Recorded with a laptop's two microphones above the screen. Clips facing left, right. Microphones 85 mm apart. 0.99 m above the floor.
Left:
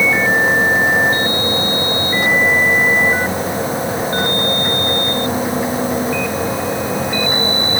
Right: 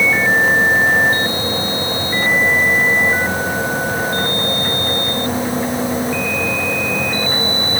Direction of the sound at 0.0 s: 10° left (ahead or behind).